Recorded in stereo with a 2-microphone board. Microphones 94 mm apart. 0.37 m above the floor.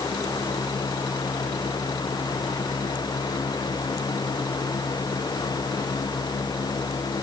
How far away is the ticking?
No ticking in this recording.